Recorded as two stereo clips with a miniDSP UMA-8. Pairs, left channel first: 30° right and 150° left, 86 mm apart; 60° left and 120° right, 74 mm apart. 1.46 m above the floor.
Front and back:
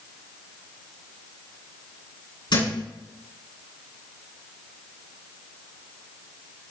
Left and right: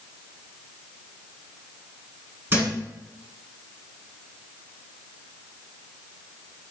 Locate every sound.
2.5 s a thud: 60° right, 5 m